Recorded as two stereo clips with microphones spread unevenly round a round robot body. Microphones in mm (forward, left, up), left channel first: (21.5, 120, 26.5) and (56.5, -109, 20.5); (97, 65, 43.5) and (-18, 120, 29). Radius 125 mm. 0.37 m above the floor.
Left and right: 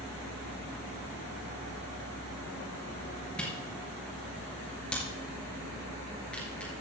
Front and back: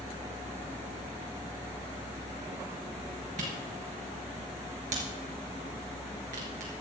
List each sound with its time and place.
3.4 s a camera shutter: 175° right, 3.5 m